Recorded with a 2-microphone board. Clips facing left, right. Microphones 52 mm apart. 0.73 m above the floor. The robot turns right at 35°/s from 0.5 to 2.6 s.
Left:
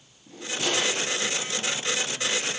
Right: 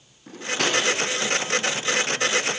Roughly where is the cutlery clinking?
Right.